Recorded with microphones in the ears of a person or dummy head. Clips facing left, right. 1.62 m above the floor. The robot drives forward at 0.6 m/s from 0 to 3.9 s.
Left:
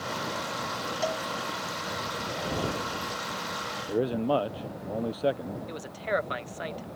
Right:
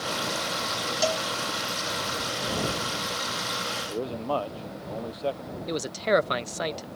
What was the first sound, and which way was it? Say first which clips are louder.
A cowbell: right 4 dB; 50° right (ahead or behind).